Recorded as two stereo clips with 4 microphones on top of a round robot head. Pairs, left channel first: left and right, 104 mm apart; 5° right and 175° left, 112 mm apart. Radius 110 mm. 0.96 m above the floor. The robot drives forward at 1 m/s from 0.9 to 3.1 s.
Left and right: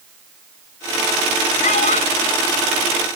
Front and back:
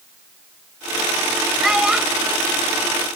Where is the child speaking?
90° left; by 2.4 s 100° left.